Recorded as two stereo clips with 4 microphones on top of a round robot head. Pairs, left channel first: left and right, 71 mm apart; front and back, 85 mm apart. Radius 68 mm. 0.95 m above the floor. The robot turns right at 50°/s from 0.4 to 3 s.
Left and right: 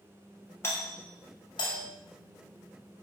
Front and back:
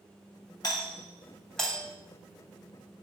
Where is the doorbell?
35° left, 5.5 m; by 1.8 s 95° left, 5.5 m.